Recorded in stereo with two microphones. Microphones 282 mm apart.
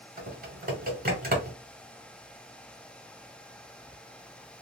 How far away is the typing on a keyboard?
About 1.0 m.